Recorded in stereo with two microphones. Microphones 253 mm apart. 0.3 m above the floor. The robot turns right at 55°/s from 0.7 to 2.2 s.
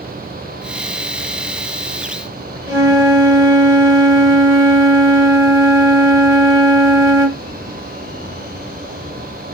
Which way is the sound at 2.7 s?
60° right (ahead or behind).